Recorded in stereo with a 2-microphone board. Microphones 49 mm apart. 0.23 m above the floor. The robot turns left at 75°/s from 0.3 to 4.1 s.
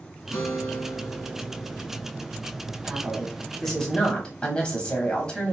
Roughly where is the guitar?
Behind left.